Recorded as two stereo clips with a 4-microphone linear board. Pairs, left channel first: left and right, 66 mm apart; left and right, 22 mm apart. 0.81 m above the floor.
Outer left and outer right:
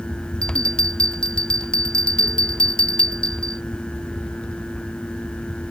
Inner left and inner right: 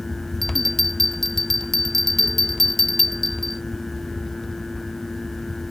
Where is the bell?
10° left (ahead or behind).